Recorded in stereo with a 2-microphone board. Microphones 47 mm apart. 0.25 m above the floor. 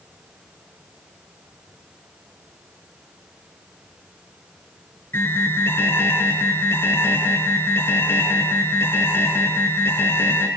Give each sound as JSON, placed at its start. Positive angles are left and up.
{"t": 5.1, "sound": "an alarm", "side_deg": 70, "distance_m": 4.5}